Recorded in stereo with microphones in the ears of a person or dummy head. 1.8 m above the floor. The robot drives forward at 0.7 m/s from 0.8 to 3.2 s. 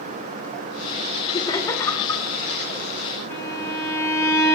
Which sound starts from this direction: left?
Laughter, at 1.3 s.